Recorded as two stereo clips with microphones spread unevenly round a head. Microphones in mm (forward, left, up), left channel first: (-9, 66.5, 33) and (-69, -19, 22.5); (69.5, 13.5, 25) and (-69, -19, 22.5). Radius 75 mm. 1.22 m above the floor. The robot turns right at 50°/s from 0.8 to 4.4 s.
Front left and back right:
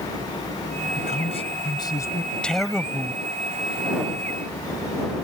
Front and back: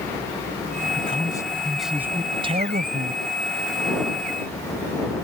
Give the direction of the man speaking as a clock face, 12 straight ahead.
10 o'clock.